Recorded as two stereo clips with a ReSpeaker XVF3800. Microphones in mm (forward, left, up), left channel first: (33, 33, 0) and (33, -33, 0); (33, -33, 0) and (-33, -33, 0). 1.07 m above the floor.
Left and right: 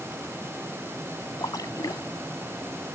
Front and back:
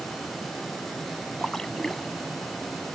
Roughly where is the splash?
Left.